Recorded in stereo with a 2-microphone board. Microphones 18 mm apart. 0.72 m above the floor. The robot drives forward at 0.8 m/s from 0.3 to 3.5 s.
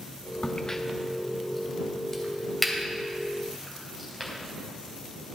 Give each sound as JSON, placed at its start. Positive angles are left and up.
{"t": 0.4, "sound": "a crack", "side_deg": 50, "distance_m": 0.5}